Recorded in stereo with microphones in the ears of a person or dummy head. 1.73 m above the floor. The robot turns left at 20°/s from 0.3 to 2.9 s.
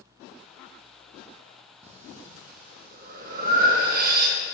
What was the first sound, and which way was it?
Breathing, 35° right (ahead or behind).